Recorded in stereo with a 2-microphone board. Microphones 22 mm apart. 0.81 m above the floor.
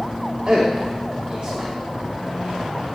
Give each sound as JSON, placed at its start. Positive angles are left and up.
{"t": 0.5, "sound": "a man speaking", "side_deg": -55, "distance_m": 1.4}